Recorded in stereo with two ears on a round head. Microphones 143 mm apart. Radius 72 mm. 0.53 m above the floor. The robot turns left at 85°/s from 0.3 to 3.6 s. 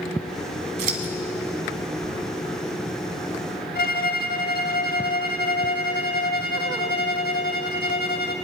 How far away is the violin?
About 0.7 m.